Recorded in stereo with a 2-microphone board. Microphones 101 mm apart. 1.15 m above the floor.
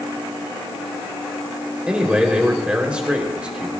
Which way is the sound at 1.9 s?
10° right (ahead or behind).